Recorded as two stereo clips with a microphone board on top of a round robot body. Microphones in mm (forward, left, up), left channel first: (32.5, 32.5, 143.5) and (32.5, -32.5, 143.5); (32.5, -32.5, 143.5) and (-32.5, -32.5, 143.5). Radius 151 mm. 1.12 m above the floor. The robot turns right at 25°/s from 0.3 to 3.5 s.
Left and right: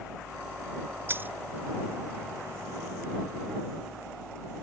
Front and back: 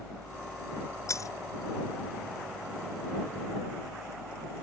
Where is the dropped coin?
35° right; by 1.3 s 30° right.